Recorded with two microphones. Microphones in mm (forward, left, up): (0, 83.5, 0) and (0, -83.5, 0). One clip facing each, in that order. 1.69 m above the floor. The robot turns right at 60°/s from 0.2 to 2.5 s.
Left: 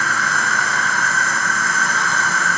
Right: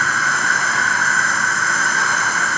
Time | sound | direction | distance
0.0 | an insect | 160° right | 1.5 m